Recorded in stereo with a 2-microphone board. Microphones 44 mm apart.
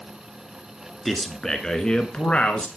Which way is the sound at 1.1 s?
Centre (ahead or behind).